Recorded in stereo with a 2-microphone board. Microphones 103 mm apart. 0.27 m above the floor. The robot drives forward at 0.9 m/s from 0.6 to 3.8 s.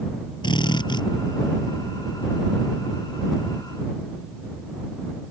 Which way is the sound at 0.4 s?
45° left (ahead or behind).